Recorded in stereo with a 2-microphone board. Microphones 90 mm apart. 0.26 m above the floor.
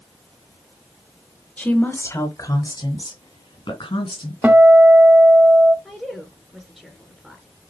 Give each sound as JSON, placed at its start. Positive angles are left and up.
{"t": 1.6, "sound": "a woman speaking", "side_deg": 15, "distance_m": 1.3}
{"t": 4.4, "sound": "a guitar", "side_deg": -20, "distance_m": 1.0}
{"t": 5.8, "sound": "a woman speaking", "side_deg": 5, "distance_m": 2.5}